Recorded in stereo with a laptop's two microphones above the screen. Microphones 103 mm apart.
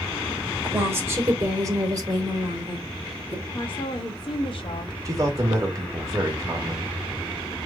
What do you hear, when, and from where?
0.6 s a woman speaking: 20° right (ahead or behind), 2.5 m; by 3.4 s 60° right (ahead or behind), 2.5 m
3.5 s a woman speaking: 55° left (ahead or behind), 1.5 m
5.0 s a man speaking: 35° right (ahead or behind), 2 m